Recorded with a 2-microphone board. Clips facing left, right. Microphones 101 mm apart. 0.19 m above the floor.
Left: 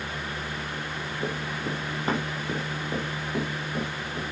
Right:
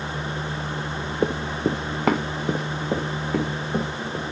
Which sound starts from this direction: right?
Running footsteps, at 1.2 s.